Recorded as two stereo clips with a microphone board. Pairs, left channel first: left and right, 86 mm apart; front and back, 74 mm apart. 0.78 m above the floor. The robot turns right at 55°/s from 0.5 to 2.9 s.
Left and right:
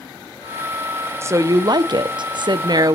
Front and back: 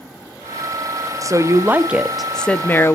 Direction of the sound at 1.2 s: 145° right.